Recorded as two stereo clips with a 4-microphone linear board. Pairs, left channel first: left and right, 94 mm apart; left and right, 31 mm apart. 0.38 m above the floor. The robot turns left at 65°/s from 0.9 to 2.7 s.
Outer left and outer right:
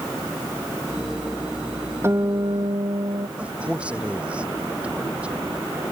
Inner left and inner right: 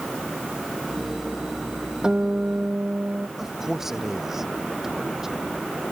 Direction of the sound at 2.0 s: 25° right.